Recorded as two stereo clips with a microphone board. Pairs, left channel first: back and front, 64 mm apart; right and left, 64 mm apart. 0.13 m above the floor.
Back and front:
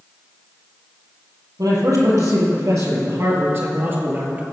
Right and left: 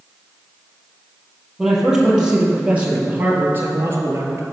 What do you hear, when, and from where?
1.6 s a man speaking: 5° left, 3 m; by 4.4 s 60° left, 2 m